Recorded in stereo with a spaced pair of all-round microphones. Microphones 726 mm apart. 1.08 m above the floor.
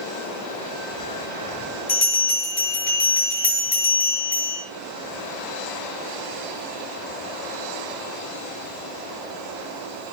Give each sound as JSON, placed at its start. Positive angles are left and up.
{"t": 1.9, "sound": "a bell", "side_deg": 85, "distance_m": 7.0}